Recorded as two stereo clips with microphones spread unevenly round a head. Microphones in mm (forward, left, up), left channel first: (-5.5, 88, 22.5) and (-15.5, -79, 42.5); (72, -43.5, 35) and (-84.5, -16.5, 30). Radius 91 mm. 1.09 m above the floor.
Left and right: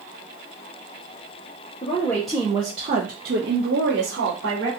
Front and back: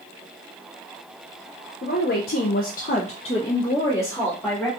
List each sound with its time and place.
1.8 s a woman speaking: 25° left, 0.7 m; by 4.7 s 90° right, 1.4 m